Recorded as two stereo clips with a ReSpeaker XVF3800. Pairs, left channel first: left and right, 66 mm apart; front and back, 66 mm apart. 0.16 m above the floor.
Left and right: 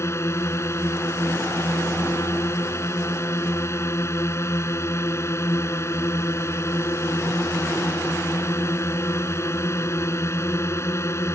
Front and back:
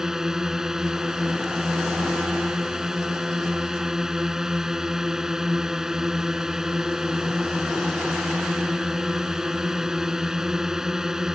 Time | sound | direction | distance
0.0 | a drone | 100° left | ?